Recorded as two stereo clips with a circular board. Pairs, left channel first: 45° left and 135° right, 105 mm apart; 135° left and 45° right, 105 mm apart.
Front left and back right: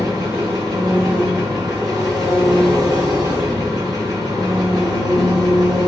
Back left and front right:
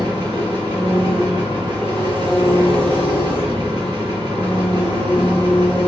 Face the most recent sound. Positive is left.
turn(degrees=-85)